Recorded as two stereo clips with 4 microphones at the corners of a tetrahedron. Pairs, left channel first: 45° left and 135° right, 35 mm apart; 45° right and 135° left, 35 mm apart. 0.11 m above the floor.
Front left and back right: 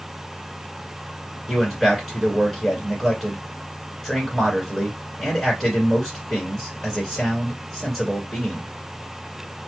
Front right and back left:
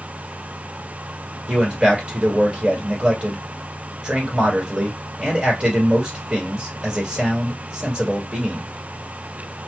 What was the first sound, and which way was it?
A man speaking, 125° left.